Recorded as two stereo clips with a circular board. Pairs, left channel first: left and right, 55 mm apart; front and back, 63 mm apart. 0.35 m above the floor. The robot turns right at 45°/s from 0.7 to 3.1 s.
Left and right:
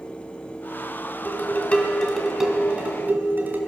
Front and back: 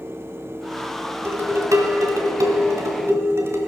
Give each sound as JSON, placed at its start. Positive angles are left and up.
{"t": 1.2, "sound": "dishes clattering", "azimuth_deg": 135, "distance_m": 1.7}